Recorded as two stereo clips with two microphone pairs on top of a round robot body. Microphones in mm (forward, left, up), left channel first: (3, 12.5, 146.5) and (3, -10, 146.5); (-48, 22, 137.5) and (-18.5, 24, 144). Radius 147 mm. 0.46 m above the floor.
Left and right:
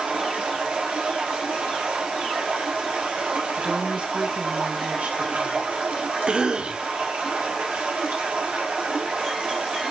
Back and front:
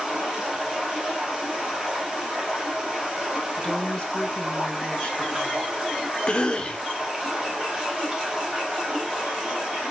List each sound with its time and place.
0.0 s running water: 70° right, 3 m
3.6 s a woman speaking: 120° right, 5 m
6.3 s a cough: 130° right, 1.5 m